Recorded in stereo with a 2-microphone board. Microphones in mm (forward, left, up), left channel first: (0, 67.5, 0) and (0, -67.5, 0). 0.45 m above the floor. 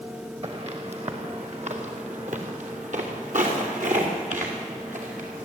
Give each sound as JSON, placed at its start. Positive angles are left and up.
{"t": 0.4, "sound": "footsteps", "side_deg": -50, "distance_m": 3.0}